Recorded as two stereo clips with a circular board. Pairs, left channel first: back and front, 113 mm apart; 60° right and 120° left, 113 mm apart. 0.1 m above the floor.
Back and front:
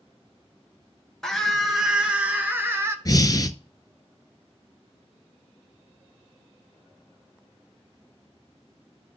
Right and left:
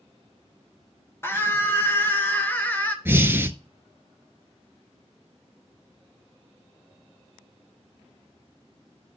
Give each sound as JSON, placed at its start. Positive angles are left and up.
{"t": 1.2, "sound": "a scream", "azimuth_deg": -100, "distance_m": 1.5}
{"t": 3.0, "sound": "breathing", "azimuth_deg": 175, "distance_m": 0.6}